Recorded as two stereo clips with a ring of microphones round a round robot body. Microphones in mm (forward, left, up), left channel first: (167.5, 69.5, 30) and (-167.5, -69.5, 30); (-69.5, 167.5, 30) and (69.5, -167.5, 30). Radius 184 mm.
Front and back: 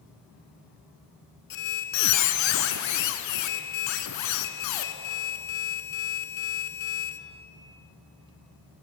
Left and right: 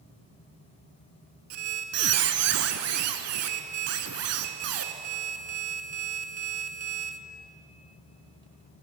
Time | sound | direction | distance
1.5 | a squeak | 20° right | 0.6 m